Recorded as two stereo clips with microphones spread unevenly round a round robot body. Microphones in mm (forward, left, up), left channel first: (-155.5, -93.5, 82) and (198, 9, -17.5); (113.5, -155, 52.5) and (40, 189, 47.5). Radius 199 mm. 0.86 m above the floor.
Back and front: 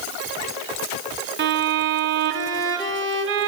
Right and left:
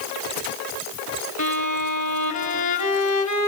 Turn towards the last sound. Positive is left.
turn(degrees=-40)